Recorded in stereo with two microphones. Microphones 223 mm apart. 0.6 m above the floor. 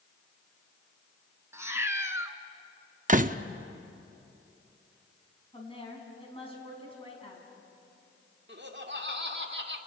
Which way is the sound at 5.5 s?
25° left (ahead or behind).